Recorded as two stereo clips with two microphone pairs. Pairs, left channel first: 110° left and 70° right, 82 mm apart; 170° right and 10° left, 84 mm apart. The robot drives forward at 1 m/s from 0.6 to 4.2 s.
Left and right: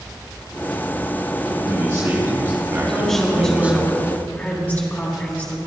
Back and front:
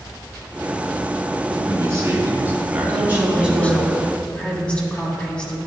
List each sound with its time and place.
1.5 s a man speaking: 20° right, 2.5 m; by 3.9 s 130° right, 1.5 m
2.9 s a woman speaking: 25° left, 1.8 m; by 5.6 s 130° left, 1.6 m